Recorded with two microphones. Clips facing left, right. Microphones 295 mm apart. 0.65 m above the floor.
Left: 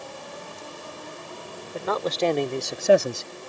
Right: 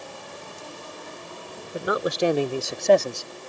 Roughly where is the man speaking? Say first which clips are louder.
Right 2 dB; centre.